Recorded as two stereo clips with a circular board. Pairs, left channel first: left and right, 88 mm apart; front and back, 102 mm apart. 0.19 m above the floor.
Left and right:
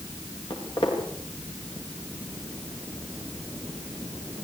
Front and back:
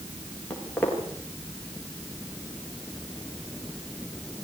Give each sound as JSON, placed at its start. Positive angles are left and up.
{"t": 0.5, "sound": "footsteps", "azimuth_deg": 75, "distance_m": 9.5}